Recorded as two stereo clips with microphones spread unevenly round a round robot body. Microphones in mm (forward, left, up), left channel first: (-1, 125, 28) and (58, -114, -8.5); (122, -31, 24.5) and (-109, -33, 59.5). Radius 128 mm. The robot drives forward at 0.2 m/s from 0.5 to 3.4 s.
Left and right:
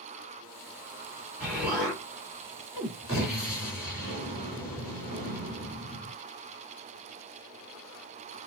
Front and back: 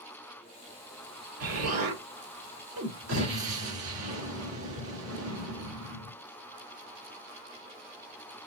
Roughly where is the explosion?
Behind.